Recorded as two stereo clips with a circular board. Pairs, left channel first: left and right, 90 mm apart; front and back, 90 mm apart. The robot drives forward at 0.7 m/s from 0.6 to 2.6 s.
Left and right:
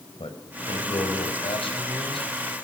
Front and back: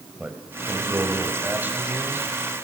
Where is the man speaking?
100° left, 5 m; by 2.3 s 115° left, 5 m.